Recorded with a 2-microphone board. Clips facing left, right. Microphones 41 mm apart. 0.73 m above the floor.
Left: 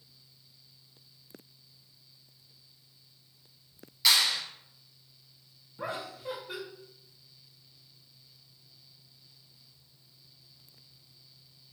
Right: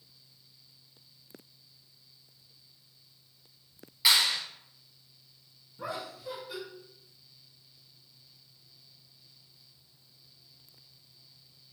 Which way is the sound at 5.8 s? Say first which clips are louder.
Left 1 dB; 40° left (ahead or behind).